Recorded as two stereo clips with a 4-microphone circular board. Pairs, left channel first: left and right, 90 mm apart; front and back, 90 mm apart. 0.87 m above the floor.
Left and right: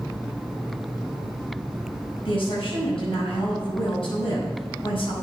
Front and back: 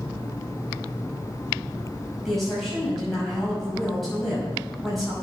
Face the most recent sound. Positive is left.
turn(degrees=90)